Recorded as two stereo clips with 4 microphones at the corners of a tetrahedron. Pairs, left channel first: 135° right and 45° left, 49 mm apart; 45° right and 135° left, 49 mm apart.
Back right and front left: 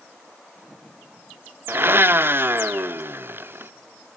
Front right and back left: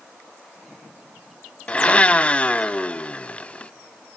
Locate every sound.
1.7 s a blender: 15° left, 0.7 m